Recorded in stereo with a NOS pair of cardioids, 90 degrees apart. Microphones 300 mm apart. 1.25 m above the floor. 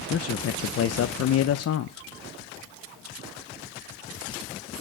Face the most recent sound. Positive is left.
turn(degrees=55)